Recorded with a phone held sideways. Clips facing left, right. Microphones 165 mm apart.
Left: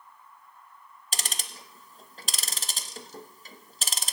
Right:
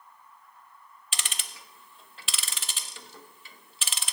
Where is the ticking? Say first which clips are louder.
Left 3 dB; 40° left (ahead or behind), 0.8 m.